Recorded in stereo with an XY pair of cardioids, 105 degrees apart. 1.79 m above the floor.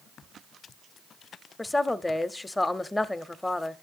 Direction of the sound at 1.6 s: 20° left.